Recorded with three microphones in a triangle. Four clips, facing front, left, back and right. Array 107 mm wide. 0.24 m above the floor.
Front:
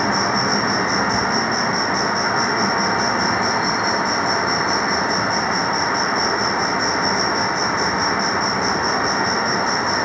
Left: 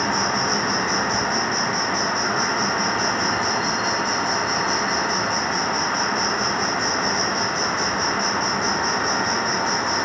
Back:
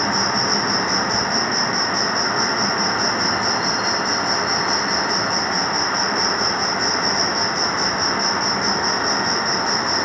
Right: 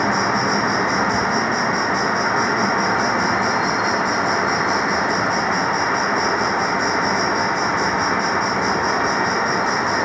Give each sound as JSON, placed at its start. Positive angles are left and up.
{"t": 0.0, "sound": "an insect", "azimuth_deg": 155}